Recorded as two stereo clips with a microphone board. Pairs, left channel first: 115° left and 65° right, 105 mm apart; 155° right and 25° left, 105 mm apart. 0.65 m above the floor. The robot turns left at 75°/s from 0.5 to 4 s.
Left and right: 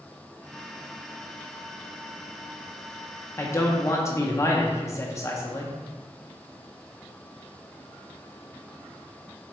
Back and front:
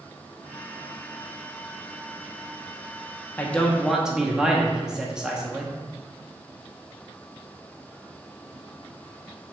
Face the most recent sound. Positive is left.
turn(degrees=100)